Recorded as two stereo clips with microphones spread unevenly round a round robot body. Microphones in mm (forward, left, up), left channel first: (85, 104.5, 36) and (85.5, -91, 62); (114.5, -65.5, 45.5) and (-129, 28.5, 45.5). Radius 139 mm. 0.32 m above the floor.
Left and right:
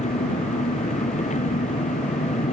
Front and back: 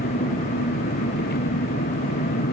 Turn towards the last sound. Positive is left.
turn(degrees=35)